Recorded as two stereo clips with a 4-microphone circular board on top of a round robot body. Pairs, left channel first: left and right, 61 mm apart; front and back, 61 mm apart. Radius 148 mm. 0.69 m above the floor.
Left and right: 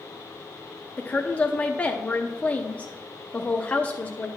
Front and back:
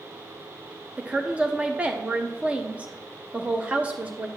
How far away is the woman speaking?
About 0.7 m.